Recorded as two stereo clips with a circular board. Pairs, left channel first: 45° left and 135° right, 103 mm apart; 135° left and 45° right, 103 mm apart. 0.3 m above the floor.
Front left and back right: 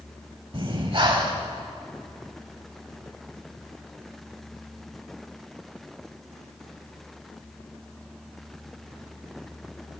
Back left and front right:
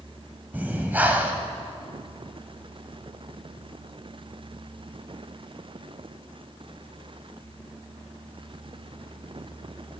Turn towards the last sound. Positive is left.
turn(degrees=-115)